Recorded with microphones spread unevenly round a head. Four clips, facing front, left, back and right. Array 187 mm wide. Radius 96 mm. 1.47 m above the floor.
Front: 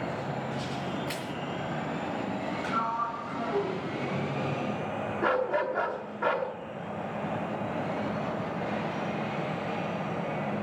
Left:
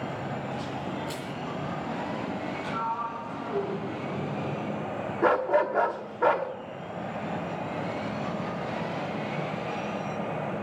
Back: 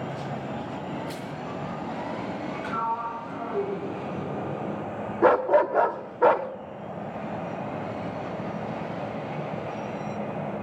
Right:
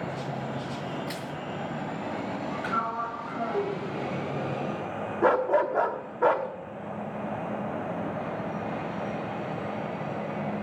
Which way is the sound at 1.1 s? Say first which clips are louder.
Even, even; 45° right.